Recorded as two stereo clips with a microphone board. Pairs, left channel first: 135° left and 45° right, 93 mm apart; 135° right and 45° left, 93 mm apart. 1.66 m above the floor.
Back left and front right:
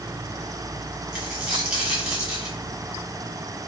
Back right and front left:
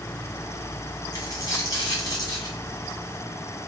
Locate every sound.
1.1 s a dropped coin: 120° right, 1.6 m